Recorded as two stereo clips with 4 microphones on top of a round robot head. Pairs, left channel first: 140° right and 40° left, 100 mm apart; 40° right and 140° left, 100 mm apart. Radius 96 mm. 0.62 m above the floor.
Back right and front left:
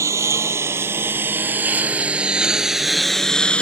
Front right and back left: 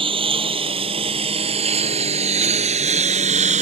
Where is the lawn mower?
100° left; by 3.6 s 140° left.